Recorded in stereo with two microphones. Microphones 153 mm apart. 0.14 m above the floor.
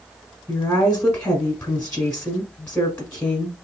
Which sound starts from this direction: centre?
A woman speaking, at 0.5 s.